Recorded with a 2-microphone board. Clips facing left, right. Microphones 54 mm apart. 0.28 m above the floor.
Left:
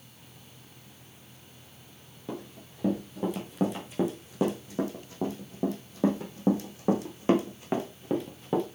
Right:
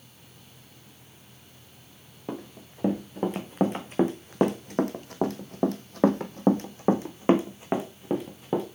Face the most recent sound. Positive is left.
turn(degrees=-10)  # may be behind; listen again after turning